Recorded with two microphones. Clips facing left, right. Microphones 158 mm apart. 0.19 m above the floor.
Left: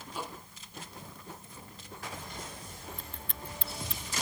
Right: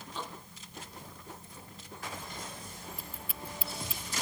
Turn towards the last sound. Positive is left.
turn(degrees=-5)  # may be behind; listen again after turning